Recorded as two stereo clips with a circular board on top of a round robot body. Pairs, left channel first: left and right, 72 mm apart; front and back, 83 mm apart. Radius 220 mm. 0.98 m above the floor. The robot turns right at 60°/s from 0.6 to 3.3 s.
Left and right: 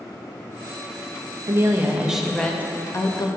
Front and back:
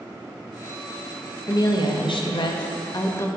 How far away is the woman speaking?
About 1.4 m.